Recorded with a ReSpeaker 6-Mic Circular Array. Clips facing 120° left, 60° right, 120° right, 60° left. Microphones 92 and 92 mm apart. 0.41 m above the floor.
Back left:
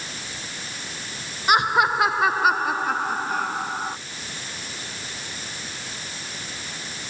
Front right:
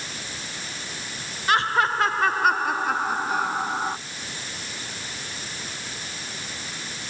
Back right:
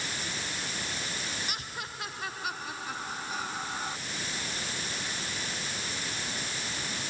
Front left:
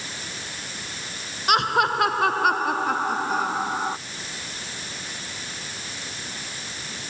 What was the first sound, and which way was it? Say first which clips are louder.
Laughter: back left 2 dB, front left 19 dB; 45° left.